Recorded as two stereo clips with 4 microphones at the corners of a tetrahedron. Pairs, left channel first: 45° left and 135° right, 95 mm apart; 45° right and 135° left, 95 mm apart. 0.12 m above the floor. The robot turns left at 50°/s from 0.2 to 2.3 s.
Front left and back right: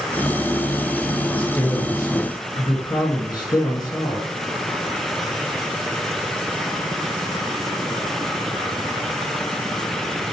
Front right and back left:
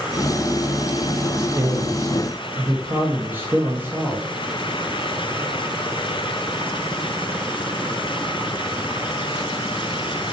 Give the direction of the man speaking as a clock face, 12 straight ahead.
8 o'clock.